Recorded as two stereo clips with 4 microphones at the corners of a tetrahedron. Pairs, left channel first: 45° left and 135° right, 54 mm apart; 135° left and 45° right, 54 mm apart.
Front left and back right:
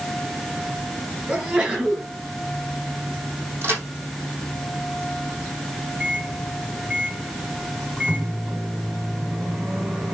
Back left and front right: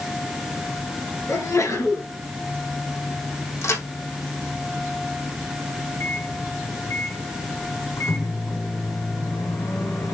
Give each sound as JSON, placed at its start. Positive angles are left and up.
{"t": 1.3, "sound": "a sneeze", "azimuth_deg": 160, "distance_m": 5.0}
{"t": 3.6, "sound": "a crack", "azimuth_deg": 175, "distance_m": 3.5}
{"t": 6.0, "sound": "a microwave", "azimuth_deg": 160, "distance_m": 3.0}